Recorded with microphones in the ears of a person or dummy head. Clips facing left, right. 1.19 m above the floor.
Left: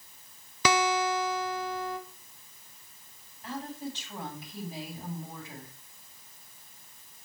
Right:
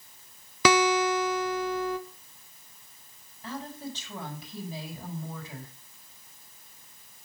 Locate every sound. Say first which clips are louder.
0.7 s a guitar: right 4 dB; 50° right (ahead or behind), 0.7 m
3.4 s a woman speaking: even; 80° right, 5.5 m